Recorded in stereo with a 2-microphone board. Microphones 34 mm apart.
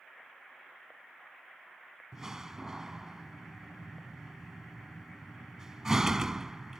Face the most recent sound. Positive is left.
turn(degrees=-15)  # may be behind; listen again after turning